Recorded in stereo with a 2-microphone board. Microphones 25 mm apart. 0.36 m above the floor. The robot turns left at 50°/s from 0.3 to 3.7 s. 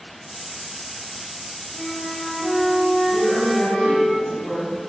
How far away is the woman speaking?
About 2.5 m.